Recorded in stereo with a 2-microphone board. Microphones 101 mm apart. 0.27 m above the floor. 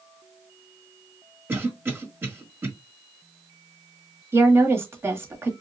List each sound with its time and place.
1.5 s a cough: 20° right (ahead or behind), 1.4 m
4.3 s a woman speaking: 25° right (ahead or behind), 1.3 m